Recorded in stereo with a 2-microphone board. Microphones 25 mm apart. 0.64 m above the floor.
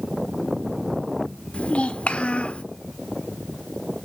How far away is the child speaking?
About 1.1 m.